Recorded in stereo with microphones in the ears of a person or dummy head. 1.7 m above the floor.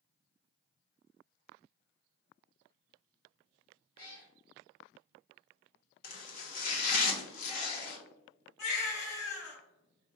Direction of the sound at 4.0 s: 35° left (ahead or behind).